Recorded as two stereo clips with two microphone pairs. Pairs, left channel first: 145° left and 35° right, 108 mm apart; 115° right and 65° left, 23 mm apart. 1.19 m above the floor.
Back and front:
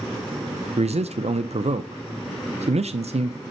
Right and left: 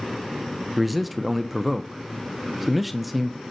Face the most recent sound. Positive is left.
turn(degrees=-25)